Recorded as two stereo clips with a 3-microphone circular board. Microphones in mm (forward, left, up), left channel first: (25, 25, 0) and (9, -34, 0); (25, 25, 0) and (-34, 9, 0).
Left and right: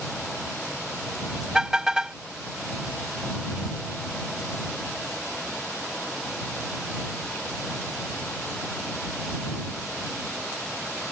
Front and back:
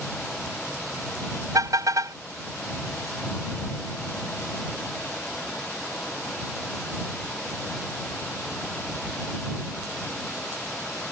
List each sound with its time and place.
1.5 s a car horn: 175° left